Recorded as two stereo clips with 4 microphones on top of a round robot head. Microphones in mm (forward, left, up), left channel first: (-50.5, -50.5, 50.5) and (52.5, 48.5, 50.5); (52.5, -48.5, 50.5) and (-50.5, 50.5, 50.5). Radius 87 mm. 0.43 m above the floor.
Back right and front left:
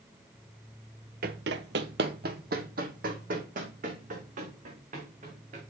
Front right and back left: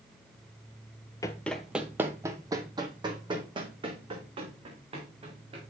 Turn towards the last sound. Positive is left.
turn(degrees=85)